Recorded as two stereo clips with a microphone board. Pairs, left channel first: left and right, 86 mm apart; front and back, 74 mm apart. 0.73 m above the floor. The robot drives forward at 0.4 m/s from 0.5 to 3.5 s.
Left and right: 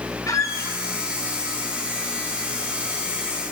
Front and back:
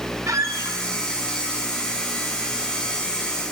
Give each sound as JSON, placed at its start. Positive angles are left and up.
{"t": 0.3, "sound": "a squeak", "azimuth_deg": 140, "distance_m": 0.7}